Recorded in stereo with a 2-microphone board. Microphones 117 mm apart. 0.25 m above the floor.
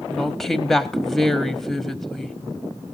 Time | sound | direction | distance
0.1 | a woman speaking | 5° left (ahead or behind) | 1.0 m